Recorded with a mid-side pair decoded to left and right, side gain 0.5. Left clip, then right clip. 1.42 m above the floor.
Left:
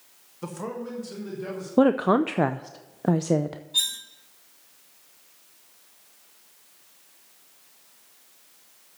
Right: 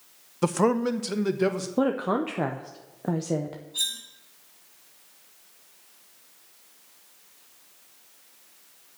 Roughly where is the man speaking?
Ahead right.